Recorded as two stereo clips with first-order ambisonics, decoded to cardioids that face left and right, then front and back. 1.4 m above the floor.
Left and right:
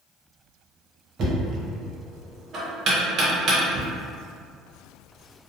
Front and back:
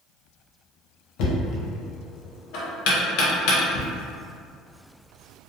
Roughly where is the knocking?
Ahead right.